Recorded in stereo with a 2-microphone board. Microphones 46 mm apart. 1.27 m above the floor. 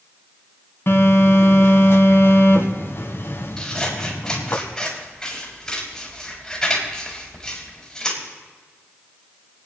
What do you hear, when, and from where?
0.9 s a phone buzzing: 55° left (ahead or behind), 2 m
3.6 s scissors: 10° left (ahead or behind), 4 m